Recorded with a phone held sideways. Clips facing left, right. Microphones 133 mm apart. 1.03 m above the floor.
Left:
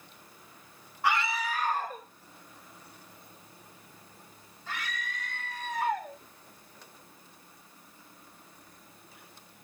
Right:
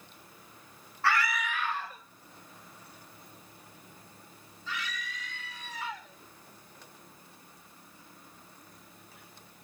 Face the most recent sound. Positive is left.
turn(degrees=55)  # may be behind; listen again after turning